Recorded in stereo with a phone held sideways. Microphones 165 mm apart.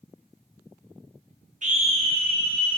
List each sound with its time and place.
1.6 s a scream: 50° right (ahead or behind), 0.7 m; by 2.8 s 30° right (ahead or behind), 1.3 m